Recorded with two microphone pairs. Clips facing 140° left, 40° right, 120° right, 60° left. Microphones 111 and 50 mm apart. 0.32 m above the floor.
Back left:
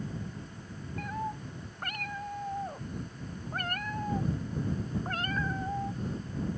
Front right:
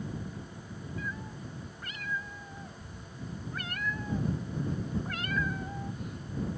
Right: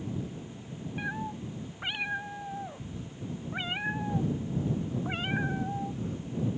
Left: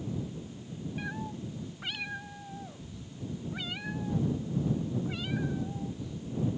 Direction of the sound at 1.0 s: 170° left.